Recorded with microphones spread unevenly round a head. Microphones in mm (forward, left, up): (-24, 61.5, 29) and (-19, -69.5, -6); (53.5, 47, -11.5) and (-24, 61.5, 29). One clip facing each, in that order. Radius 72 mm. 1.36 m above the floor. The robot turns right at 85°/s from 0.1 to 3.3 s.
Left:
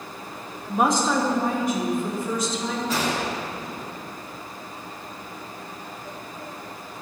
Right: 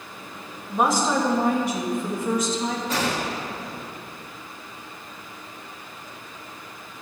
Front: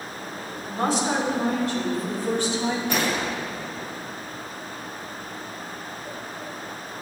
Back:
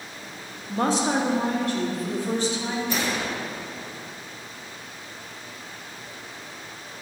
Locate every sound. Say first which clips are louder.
0.7 s a woman speaking: even, back 1 dB; 170° left, 2.5 m; by 2.8 s 15° right, 2.5 m
2.9 s a gunshot: even, front 2 dB; straight ahead, 1.5 m; by 4.0 s 35° left, 1.5 m